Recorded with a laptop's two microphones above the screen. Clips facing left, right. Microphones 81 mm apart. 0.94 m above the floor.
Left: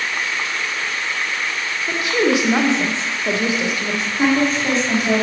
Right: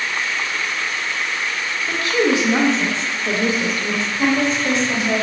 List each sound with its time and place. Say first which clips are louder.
1.9 s a woman speaking: even; 20° left (ahead or behind), 0.5 m
4.2 s a woman speaking: left 2 dB; 50° left (ahead or behind), 1.6 m